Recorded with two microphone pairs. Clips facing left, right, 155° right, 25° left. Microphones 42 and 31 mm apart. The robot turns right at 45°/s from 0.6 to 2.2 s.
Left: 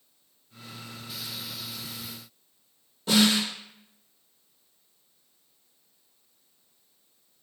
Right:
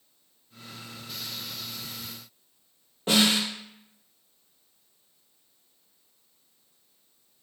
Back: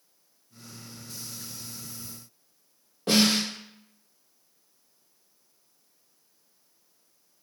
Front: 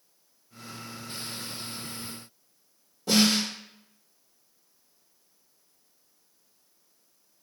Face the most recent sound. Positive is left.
turn(degrees=-145)